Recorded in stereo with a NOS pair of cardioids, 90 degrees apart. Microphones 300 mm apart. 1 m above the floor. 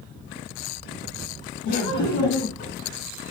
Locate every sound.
1.6 s laughter: 70° left, 1.6 m; by 2.7 s 65° left, 1.1 m